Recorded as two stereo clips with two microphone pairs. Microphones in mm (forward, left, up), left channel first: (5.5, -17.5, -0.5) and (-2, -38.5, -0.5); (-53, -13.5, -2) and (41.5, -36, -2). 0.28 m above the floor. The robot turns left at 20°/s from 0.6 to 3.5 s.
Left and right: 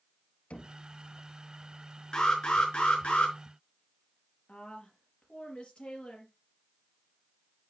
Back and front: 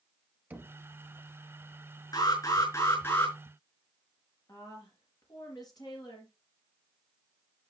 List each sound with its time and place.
0.5 s knocking: 55° left, 1.6 m; by 0.8 s 50° left, 1.6 m
2.1 s an alarm: 125° left, 4.5 m; by 3.4 s 100° left, 4.5 m
4.5 s a woman speaking: 120° left, 4.5 m